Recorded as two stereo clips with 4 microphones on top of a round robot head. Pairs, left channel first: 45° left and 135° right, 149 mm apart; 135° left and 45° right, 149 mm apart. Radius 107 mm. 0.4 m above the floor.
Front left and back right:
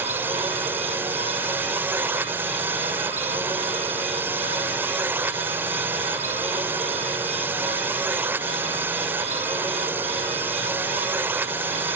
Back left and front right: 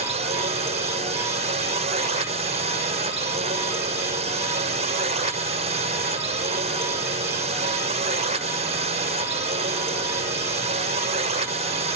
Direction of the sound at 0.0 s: 65° right.